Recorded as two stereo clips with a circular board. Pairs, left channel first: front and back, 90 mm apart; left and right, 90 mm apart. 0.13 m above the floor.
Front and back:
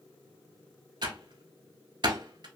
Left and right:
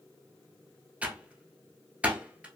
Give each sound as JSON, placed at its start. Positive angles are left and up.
{"t": 1.0, "sound": "typing on a keyboard", "azimuth_deg": -160, "distance_m": 0.8}